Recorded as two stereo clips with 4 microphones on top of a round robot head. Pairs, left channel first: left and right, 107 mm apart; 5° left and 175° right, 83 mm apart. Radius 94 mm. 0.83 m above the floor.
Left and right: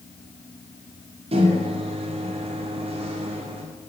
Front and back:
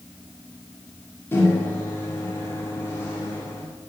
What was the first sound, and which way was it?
A microwave, 60° right.